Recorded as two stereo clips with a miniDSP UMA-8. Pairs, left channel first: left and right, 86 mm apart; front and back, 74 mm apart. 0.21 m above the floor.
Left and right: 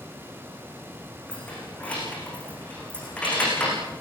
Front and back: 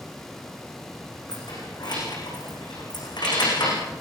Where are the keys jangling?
15° left, 10 m.